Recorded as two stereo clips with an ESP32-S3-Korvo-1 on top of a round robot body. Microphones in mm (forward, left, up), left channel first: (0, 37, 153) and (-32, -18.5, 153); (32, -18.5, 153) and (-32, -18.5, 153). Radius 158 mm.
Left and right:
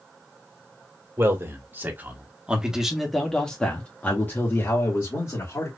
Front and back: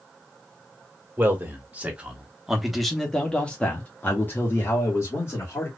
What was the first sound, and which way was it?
A man speaking, 135° right.